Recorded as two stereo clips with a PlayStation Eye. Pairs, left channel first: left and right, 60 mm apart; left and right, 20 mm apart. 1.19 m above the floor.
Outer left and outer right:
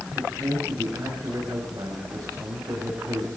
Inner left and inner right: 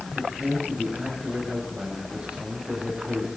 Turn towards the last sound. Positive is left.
turn(degrees=-75)  # may be behind; listen again after turning